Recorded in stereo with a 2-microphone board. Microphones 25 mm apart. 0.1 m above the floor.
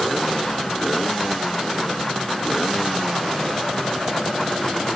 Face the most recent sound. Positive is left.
No sound to turn to.